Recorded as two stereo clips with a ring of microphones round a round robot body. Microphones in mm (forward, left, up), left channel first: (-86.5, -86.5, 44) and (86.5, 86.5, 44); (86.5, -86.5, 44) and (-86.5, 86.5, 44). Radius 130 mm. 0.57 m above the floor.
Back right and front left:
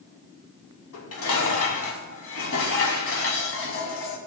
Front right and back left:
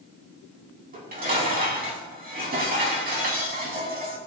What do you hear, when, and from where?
0.9 s dishes clattering: 170° right, 3 m